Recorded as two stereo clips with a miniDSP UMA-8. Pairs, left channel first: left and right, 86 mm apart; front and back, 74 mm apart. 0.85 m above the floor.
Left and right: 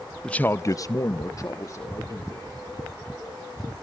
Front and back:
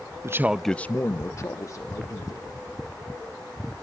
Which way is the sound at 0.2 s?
165° left.